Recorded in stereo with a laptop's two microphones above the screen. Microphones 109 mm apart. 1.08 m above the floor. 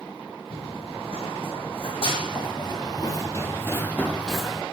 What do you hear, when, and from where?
0.5 s running footsteps: 70° left (ahead or behind), 4.5 m; by 4.6 s 5° right (ahead or behind), 2.5 m